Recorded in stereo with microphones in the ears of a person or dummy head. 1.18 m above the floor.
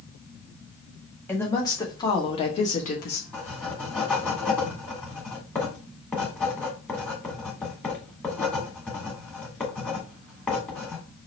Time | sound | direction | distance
1.3 | a woman speaking | 15° left (ahead or behind) | 1.6 m
3.3 | writing | 10° left (ahead or behind) | 1.8 m